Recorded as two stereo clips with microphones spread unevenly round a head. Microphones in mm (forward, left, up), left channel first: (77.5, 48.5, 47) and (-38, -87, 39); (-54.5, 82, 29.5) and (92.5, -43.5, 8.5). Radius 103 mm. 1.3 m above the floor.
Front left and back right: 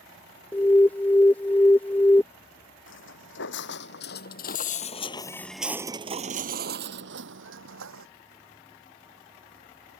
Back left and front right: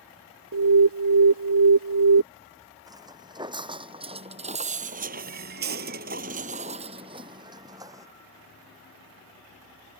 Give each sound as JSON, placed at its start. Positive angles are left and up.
{"t": 0.5, "sound": "an alarm", "azimuth_deg": -30}
{"t": 2.9, "sound": "footsteps", "azimuth_deg": 35}